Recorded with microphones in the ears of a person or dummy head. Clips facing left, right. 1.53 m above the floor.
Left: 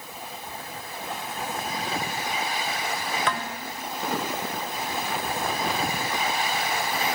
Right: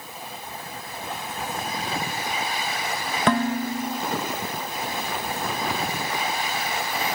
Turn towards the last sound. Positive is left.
turn(degrees=-30)  # may be behind; listen again after turning